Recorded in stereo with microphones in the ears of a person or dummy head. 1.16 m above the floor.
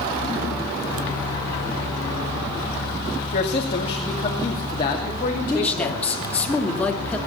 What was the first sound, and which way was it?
A woman speaking, 45° left (ahead or behind).